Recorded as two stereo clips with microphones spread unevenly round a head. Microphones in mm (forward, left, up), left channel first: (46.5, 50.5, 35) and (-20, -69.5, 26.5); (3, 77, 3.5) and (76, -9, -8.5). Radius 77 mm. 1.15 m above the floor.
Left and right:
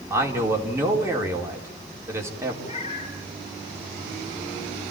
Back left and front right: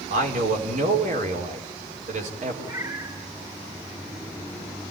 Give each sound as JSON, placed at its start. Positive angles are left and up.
{"t": 0.1, "sound": "a man speaking", "azimuth_deg": -45, "distance_m": 4.5}
{"t": 2.6, "sound": "a cat meowing", "azimuth_deg": 10, "distance_m": 8.5}